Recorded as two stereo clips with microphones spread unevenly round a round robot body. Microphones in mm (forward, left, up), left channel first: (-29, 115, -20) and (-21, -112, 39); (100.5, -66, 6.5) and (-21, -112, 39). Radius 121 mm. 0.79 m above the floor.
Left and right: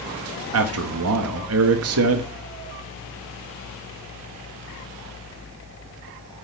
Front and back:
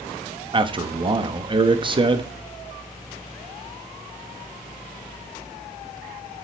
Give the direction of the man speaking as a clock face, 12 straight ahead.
3 o'clock.